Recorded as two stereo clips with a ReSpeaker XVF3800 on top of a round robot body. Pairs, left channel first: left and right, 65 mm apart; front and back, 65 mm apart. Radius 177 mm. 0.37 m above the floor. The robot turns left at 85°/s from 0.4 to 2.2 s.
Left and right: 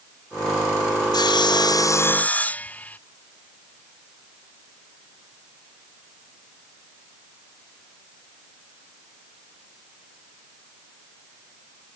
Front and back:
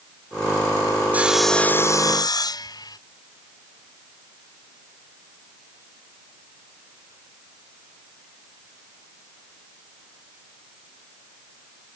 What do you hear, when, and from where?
1.1 s sawing: 115° left; by 3.0 s 20° left